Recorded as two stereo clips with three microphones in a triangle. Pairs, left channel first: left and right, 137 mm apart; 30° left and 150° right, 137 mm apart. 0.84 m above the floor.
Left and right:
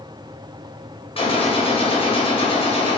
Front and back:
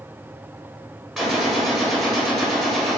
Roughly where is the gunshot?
Behind left.